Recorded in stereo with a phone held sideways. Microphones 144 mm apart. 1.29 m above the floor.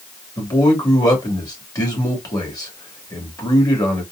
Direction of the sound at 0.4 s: 25° left (ahead or behind).